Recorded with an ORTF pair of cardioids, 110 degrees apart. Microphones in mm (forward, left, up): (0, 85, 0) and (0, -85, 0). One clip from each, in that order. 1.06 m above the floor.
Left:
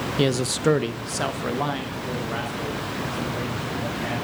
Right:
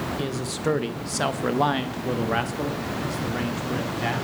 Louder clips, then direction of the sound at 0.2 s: Left 6 dB; 50° left.